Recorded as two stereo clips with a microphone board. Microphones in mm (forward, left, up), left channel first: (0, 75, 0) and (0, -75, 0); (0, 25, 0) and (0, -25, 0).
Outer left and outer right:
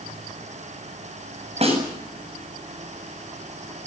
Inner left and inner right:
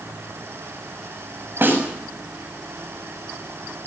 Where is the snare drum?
45° right (ahead or behind), 7.5 m.